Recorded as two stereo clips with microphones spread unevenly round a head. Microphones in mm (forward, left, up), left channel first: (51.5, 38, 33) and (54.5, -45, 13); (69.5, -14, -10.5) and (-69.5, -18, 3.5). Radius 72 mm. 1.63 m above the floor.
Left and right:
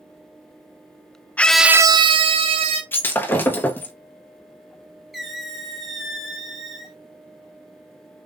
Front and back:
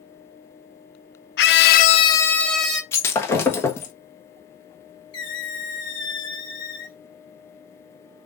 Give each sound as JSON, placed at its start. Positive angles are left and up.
{"t": 1.4, "sound": "a scream", "azimuth_deg": 25, "distance_m": 0.7}
{"t": 2.9, "sound": "breaking glass", "azimuth_deg": 75, "distance_m": 1.0}
{"t": 5.1, "sound": "a squeak", "azimuth_deg": 25, "distance_m": 1.2}